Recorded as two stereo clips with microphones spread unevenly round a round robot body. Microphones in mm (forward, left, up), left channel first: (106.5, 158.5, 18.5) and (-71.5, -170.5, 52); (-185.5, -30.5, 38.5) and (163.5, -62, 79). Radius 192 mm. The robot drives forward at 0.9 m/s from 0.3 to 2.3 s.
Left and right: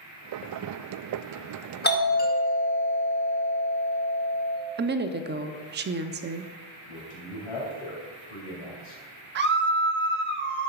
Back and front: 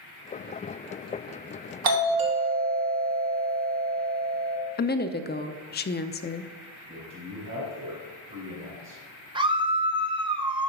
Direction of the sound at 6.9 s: 55° left.